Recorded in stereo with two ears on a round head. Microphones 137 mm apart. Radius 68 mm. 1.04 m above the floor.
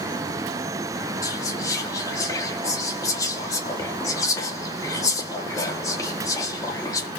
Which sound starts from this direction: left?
Whispering, at 1.2 s.